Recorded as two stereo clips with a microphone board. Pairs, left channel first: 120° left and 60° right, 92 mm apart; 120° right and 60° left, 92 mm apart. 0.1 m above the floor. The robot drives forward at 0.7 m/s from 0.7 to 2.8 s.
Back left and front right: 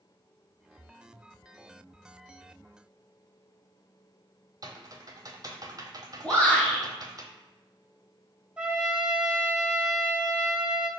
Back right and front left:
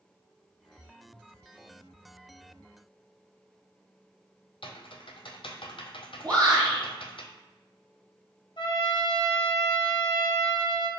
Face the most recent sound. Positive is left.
turn(degrees=-135)